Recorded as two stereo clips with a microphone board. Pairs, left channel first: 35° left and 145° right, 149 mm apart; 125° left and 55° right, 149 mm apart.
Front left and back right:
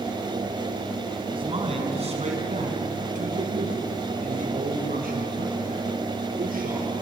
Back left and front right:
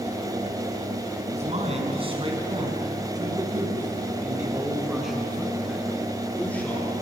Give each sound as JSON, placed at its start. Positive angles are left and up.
{"t": 1.3, "sound": "a man speaking", "azimuth_deg": -95, "distance_m": 4.5}